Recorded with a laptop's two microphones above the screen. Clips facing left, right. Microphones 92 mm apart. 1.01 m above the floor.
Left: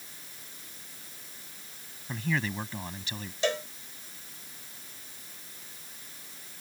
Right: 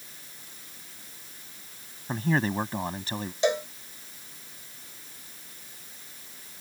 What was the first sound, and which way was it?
A man speaking, 40° right (ahead or behind).